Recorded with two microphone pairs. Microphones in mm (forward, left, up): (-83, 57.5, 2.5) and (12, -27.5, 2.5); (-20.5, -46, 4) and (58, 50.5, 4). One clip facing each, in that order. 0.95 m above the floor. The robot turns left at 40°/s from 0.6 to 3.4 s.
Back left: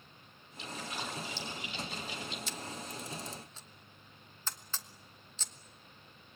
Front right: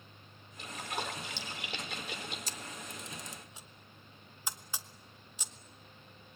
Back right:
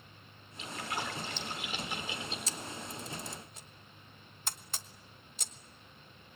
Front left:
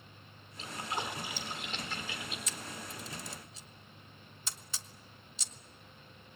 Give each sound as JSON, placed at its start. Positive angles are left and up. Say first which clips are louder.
{"t": 0.6, "sound": "a splash", "louder": "front right 2 dB, even", "azimuth_deg": 0, "distance_m": 3.5}
{"t": 2.5, "sound": "a camera shutter", "louder": "back left 3 dB, back right 2 dB", "azimuth_deg": -80, "distance_m": 1.1}